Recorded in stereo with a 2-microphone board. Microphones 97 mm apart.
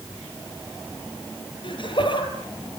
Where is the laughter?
55° left (ahead or behind), 5 m.